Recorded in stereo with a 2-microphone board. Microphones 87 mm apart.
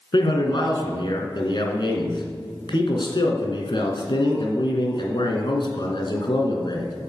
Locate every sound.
0.1 s a man speaking: 55° left (ahead or behind), 2.5 m